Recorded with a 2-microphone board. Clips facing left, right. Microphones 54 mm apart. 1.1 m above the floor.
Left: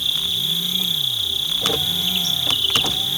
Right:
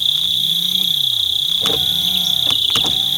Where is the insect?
40° left (ahead or behind).